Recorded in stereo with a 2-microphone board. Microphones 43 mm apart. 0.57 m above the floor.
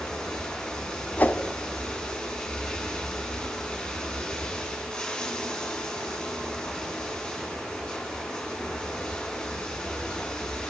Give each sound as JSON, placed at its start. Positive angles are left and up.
{"t": 0.0, "sound": "running water", "side_deg": 20, "distance_m": 5.0}
{"t": 1.2, "sound": "a whoosh", "side_deg": 45, "distance_m": 1.0}